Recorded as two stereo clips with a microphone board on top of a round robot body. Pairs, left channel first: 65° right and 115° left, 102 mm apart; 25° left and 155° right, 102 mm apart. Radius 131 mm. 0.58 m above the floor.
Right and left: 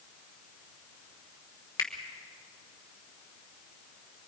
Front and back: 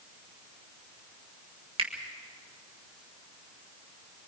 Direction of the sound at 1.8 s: 125° right.